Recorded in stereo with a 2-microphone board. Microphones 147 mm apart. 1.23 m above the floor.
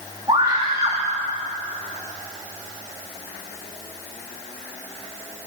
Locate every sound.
0.3 s a scream: 30° right (ahead or behind), 3 m